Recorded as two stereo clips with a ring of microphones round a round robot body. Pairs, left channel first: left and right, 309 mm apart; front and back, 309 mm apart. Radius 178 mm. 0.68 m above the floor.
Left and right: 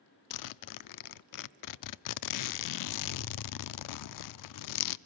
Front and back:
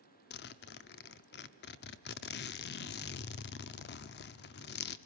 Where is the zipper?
60° left, 0.6 m.